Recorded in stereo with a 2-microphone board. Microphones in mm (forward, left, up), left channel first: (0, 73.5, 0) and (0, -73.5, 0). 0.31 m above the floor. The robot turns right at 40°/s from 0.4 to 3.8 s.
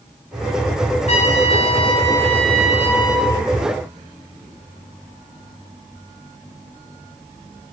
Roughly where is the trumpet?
Behind left.